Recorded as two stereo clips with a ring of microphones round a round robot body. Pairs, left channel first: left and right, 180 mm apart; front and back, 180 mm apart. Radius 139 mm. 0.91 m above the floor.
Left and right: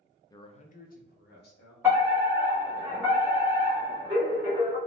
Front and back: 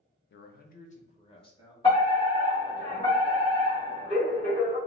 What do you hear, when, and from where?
0.3 s a man speaking: 20° left, 0.5 m; by 1.7 s 65° left, 1.2 m
1.8 s a fire alarm: 25° right, 1.3 m